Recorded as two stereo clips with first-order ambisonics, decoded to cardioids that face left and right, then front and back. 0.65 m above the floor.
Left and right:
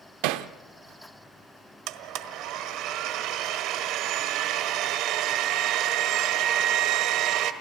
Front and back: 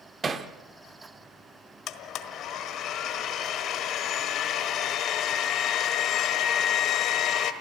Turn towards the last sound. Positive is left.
turn(degrees=-50)